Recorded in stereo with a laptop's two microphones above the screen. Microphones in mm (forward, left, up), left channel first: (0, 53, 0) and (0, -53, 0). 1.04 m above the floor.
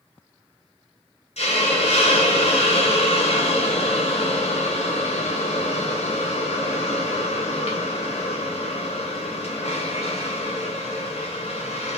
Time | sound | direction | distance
1.4 | a hiss | 75° left (ahead or behind) | 1.1 m